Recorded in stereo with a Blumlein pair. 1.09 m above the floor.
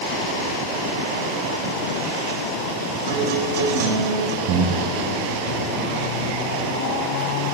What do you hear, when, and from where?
3.1 s a guitar: 55° right, 4.5 m
4.5 s breathing: 40° right, 4.5 m